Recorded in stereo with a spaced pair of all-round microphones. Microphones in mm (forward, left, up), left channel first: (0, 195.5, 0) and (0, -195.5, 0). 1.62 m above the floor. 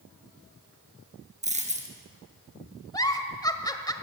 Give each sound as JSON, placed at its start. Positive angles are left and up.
{"t": 1.4, "sound": "a dropped coin", "side_deg": -20, "distance_m": 3.5}
{"t": 2.9, "sound": "a giggle", "side_deg": 10, "distance_m": 1.5}